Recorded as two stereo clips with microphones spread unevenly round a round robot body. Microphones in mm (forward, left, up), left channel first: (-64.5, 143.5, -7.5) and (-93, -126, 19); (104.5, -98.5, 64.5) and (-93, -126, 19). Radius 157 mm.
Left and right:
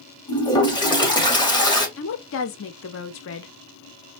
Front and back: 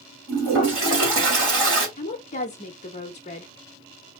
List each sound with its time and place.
0.3 s a toilet flushing: 160° left, 2.5 m
2.0 s a woman speaking: 70° left, 0.6 m